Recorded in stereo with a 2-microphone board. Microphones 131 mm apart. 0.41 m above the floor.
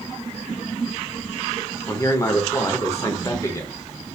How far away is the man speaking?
About 0.9 m.